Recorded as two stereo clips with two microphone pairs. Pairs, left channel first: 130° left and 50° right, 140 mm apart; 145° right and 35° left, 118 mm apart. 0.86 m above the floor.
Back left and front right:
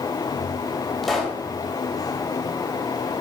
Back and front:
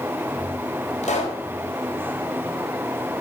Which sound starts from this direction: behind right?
A pop, at 1.0 s.